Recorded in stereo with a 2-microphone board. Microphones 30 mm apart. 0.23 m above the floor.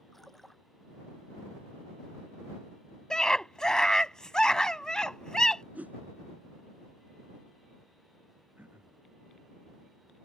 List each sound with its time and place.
0.1 s a splash: 10° left (ahead or behind)
3.1 s a scream: 25° left (ahead or behind)
5.8 s a whoosh: 70° right (ahead or behind)
8.6 s throat clearing: 80° right